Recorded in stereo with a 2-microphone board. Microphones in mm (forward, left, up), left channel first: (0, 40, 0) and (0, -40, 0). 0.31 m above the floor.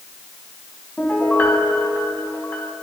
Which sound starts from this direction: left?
A piano, at 1.0 s.